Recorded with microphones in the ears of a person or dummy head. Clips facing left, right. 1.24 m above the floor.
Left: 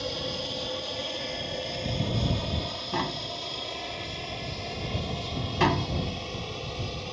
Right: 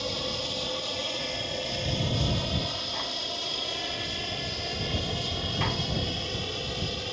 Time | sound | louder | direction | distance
0.0 | an aircraft | even | 5° left (ahead or behind) | ?
2.9 | tapping | left 4 dB | 70° left (ahead or behind) | ?